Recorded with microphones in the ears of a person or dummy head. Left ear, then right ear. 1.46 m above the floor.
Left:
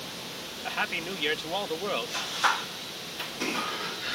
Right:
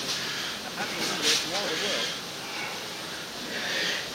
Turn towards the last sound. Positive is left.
turn(degrees=50)  # may be behind; listen again after turning